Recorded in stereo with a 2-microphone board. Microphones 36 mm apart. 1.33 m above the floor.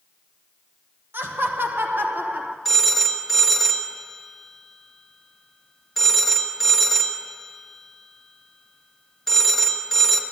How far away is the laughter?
About 1.3 m.